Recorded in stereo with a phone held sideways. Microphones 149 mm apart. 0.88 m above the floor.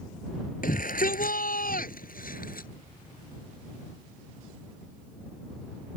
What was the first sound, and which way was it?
A shout, 70° left (ahead or behind).